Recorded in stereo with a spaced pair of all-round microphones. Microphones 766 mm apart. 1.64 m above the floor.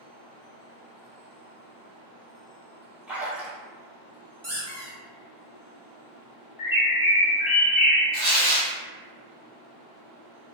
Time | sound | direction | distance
3.1 | a splash | centre (ahead or behind) | 0.7 m
4.4 | a squeak | 20° right (ahead or behind) | 0.9 m
6.6 | a bird | 30° left (ahead or behind) | 0.7 m
8.1 | tearing paper | 30° left (ahead or behind) | 1.2 m